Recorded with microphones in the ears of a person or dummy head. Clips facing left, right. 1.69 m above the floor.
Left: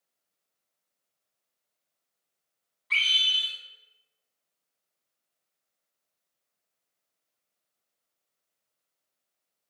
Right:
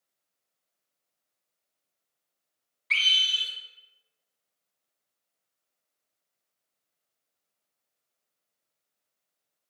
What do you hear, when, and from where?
2.9 s a scream: 45° right (ahead or behind), 1.5 m